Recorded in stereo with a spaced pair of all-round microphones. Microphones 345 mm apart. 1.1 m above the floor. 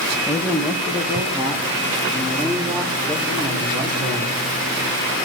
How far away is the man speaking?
About 1.4 m.